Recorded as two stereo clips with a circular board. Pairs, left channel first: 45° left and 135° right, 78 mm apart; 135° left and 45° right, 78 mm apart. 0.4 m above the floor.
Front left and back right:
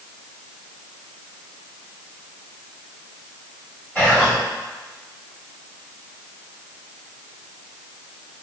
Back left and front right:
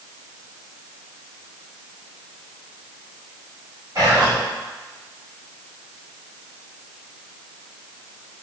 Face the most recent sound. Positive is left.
turn(degrees=-15)